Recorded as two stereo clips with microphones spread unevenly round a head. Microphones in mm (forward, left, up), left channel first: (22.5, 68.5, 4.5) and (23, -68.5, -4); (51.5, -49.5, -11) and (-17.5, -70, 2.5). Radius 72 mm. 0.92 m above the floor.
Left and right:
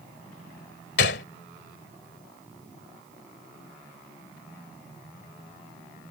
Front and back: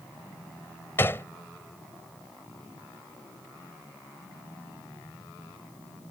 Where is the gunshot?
90° left.